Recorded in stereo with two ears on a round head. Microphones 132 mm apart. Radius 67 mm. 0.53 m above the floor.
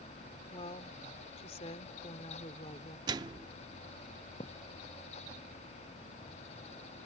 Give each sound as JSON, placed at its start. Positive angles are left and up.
{"t": 0.5, "sound": "a woman speaking", "side_deg": 40}
{"t": 3.1, "sound": "a microwave", "side_deg": -25}
{"t": 4.4, "sound": "a thud", "side_deg": 35}